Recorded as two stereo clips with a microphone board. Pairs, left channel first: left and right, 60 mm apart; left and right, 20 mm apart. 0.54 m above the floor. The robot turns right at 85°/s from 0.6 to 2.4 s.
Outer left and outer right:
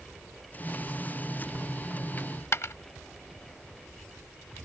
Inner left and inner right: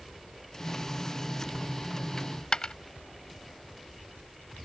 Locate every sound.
2.2 s a dropped coin: 30° left (ahead or behind); by 2.8 s 50° left (ahead or behind)